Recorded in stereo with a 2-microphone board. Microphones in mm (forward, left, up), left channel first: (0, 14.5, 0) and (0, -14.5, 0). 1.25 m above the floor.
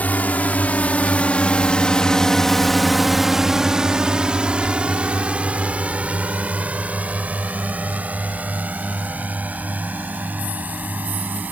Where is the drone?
65° left (ahead or behind); by 11.5 s 65° right (ahead or behind).